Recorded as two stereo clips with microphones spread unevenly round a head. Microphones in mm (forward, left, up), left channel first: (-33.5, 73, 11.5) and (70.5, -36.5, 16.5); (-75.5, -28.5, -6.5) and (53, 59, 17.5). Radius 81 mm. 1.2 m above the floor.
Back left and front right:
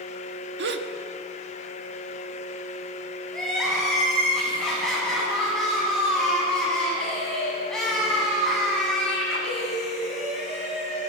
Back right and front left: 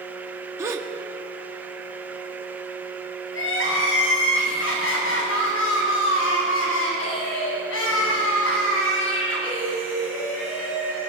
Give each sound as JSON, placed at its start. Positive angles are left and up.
{"t": 0.6, "sound": "a gasp", "azimuth_deg": -40, "distance_m": 1.8}
{"t": 3.3, "sound": "crying", "azimuth_deg": -140, "distance_m": 9.5}